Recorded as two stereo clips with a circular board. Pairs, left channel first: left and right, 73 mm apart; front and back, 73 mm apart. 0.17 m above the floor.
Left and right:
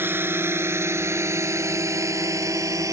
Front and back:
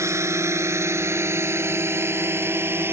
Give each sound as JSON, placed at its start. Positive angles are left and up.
{"t": 0.0, "sound": "a drone", "azimuth_deg": -145}